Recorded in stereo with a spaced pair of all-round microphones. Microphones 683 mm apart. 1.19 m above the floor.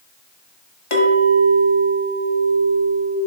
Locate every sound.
0.9 s a clink: 50° left (ahead or behind), 1.1 m